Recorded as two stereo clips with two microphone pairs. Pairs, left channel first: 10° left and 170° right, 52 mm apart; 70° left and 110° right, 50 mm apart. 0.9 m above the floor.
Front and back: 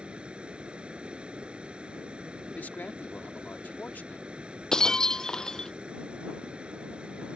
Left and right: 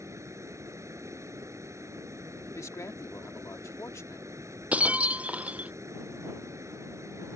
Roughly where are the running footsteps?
No running footsteps in this recording.